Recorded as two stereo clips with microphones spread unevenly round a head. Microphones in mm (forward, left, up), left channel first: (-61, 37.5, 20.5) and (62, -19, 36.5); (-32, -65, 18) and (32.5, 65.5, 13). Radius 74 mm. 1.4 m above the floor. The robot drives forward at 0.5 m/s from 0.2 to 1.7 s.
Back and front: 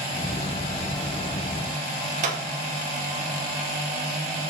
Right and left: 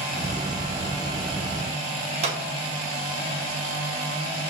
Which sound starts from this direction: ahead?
A clap, at 2.2 s.